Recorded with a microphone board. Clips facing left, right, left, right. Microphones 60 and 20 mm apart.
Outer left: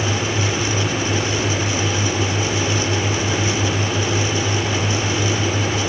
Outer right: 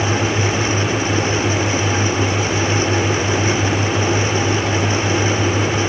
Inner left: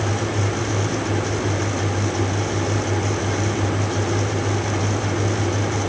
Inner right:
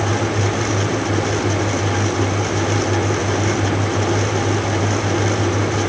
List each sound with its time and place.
Only background noise.